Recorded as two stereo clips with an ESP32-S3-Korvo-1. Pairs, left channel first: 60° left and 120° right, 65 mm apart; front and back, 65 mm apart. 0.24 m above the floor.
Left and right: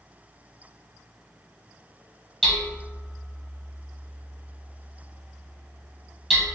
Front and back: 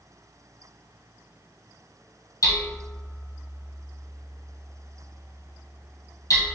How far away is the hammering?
About 1.5 m.